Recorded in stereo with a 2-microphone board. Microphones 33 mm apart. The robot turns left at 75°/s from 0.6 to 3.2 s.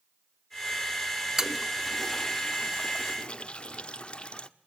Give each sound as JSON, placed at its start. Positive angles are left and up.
{"t": 1.4, "sound": "a toilet flushing", "side_deg": -15, "distance_m": 0.7}